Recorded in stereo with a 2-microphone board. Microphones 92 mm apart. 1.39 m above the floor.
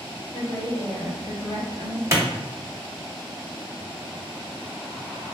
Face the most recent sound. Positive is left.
turn(degrees=-30)  # may be behind; listen again after turning